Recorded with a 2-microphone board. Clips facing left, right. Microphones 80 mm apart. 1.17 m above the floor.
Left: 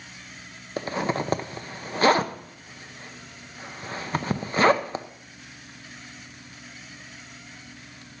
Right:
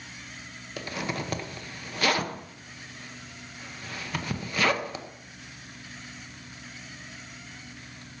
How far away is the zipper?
About 0.8 m.